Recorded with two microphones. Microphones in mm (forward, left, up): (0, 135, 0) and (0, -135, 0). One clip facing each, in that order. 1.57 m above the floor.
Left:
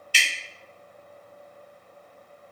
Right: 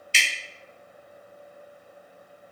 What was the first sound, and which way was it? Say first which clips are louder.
Dripping: even; 25° right (ahead or behind).